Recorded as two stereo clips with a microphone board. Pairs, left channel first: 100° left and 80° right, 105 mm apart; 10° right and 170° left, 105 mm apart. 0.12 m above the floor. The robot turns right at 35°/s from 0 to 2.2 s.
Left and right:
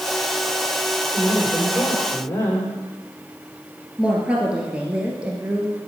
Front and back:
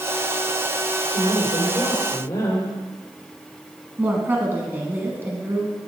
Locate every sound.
1.1 s a woman speaking: 10° left, 5 m; by 2.7 s 45° left, 5 m
4.0 s a woman speaking: 145° right, 1.3 m